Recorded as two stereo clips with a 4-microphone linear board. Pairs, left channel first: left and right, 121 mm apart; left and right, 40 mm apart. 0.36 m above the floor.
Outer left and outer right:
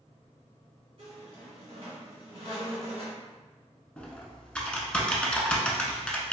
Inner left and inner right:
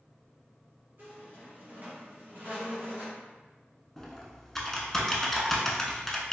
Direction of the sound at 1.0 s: 55° right (ahead or behind).